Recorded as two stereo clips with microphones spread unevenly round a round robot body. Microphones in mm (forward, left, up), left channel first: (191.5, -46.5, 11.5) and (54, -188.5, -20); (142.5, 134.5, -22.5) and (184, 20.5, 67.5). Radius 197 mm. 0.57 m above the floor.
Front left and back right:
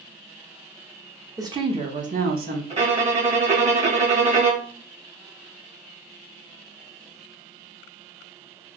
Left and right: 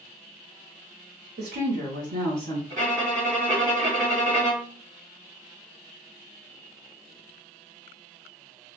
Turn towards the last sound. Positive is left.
turn(degrees=-75)